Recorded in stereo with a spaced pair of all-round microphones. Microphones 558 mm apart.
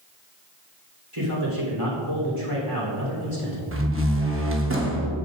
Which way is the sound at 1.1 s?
65° right (ahead or behind).